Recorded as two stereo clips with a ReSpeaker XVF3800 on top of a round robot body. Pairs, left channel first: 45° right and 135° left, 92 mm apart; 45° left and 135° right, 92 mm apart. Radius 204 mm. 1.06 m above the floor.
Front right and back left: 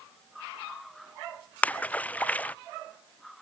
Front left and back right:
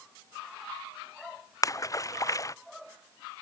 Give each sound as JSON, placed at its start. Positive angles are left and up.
{"t": 1.6, "sound": "a splash", "azimuth_deg": 20}